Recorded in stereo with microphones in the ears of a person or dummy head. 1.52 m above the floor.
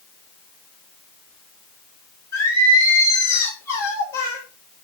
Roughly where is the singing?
Centre.